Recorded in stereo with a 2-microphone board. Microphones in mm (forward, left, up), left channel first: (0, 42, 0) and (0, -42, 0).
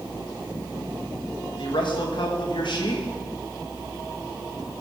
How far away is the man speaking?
About 2.5 m.